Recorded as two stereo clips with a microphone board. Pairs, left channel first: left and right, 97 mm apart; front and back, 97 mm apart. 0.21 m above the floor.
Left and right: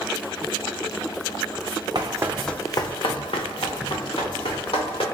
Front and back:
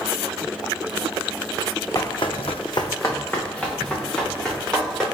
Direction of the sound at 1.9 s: 50° right.